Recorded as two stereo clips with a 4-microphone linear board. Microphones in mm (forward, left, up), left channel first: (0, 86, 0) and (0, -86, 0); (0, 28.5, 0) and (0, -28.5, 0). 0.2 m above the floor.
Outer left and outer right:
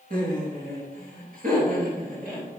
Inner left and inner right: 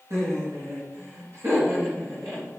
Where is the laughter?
60° right (ahead or behind), 2.5 m.